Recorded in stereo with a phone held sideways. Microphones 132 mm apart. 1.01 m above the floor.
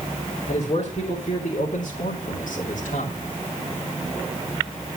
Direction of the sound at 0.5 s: 45° left (ahead or behind).